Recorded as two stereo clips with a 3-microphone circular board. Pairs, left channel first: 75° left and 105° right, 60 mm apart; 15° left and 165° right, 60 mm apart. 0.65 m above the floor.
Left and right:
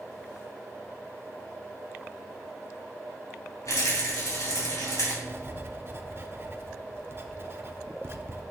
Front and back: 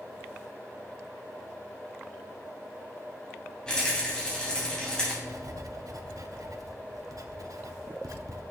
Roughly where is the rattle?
Left.